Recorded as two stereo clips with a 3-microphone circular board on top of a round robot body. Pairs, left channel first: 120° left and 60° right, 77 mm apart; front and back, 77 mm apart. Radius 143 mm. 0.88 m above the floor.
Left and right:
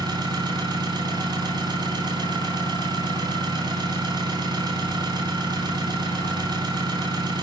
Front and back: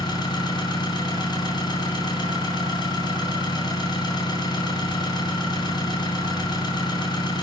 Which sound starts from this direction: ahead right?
An engine running, at 0.0 s.